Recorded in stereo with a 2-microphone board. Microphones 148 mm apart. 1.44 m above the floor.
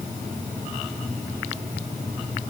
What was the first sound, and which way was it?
Only background noise.